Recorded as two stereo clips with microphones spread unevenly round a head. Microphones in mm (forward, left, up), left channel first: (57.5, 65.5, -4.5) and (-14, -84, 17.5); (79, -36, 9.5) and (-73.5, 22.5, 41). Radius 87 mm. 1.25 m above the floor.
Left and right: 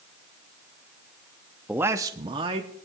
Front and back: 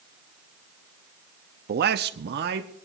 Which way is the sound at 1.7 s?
155° left.